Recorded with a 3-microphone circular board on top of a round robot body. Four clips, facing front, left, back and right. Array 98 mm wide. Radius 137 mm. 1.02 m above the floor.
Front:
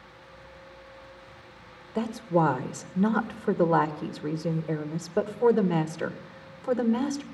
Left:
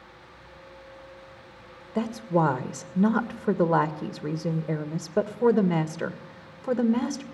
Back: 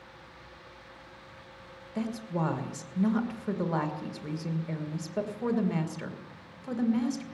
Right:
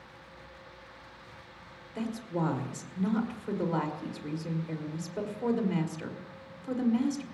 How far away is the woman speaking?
About 1.7 m.